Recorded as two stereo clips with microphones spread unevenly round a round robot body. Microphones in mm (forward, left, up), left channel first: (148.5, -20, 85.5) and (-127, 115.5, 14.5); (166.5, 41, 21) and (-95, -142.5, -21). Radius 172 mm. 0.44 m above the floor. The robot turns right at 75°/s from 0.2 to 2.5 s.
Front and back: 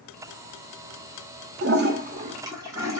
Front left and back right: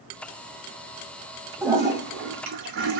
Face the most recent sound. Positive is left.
turn(degrees=-145)